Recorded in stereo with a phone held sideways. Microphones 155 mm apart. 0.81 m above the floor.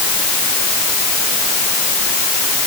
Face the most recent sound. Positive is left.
No sound to turn to.